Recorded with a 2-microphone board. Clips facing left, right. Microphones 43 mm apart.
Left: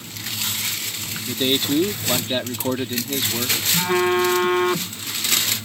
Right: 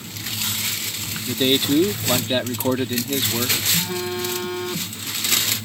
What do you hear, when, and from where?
1.3 s a man speaking: 10° right (ahead or behind)
3.7 s a phone buzzing: 55° left (ahead or behind)